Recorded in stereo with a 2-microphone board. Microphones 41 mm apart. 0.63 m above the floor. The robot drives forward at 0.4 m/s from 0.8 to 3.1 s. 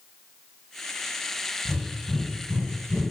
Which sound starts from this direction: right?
Breathing, at 1.6 s.